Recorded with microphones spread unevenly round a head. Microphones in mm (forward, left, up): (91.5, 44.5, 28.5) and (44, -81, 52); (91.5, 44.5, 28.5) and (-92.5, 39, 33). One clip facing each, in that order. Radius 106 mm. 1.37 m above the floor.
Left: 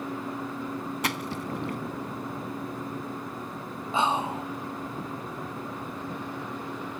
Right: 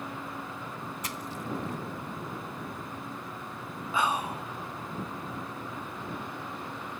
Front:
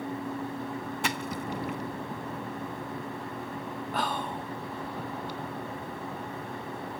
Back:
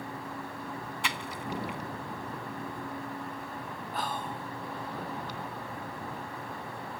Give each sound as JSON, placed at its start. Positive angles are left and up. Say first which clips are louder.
{"t": 1.0, "sound": "a splash", "louder": "left 5 dB, front 4 dB", "azimuth_deg": 45}
{"t": 3.9, "sound": "whispering", "louder": "left 3 dB, front 3 dB", "azimuth_deg": 10}